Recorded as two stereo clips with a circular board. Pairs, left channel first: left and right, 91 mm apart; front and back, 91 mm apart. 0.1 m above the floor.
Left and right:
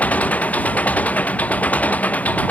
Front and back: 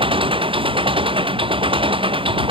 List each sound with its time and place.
0.0 s an engine running: 165° left